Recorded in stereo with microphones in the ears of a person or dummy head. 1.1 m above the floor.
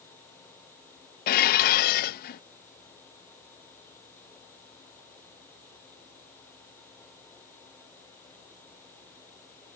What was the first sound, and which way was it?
Dishes clattering, 50° left (ahead or behind).